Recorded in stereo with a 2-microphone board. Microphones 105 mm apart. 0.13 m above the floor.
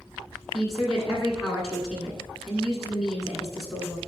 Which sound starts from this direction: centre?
A woman speaking, at 0.5 s.